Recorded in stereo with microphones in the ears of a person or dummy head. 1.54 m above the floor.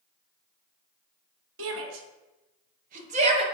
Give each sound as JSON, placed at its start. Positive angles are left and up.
{"t": 1.6, "sound": "a shout", "side_deg": -75, "distance_m": 1.3}